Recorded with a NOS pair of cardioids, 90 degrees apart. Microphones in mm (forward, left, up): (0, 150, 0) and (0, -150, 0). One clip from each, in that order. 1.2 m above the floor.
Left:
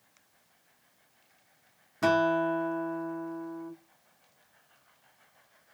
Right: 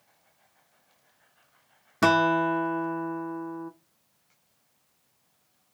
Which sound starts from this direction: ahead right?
A guitar, at 2.0 s.